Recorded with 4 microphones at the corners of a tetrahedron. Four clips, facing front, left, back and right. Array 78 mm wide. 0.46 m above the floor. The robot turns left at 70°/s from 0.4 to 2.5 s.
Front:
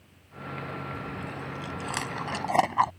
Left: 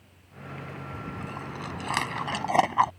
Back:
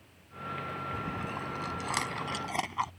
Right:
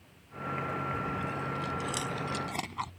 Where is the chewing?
165° left; by 2.9 s 55° left.